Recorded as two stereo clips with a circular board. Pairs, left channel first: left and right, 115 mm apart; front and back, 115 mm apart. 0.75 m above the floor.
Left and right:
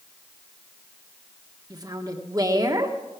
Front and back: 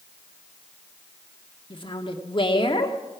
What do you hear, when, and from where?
1.7 s a woman speaking: 35° right, 1.6 m